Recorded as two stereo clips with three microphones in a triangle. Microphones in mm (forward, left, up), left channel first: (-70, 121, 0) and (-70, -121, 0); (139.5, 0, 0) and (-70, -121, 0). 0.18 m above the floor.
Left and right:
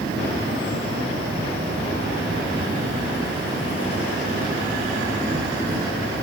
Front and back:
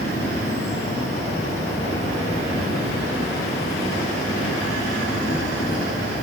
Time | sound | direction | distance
0.0 | an insect | 15° right | 8 m